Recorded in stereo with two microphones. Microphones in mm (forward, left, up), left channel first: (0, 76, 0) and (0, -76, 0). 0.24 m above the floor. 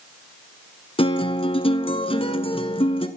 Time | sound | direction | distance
1.0 | a guitar | 35° left (ahead or behind) | 1.2 m